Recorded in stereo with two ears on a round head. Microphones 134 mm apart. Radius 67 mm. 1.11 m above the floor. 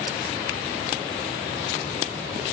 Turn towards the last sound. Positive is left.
No sound to turn to.